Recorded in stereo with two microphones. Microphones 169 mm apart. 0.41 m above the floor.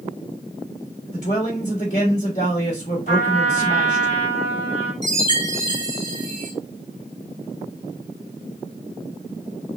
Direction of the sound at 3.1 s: 50° left (ahead or behind).